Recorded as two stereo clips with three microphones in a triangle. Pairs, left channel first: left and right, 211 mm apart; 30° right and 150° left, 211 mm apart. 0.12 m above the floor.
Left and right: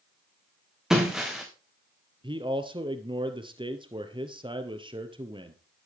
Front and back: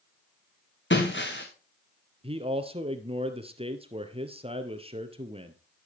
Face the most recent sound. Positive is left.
turn(degrees=-150)